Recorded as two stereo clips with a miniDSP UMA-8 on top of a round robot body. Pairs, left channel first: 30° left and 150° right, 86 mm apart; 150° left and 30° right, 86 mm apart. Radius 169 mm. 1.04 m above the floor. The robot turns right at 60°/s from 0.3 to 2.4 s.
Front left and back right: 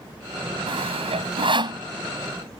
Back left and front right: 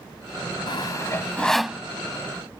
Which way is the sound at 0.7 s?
175° right.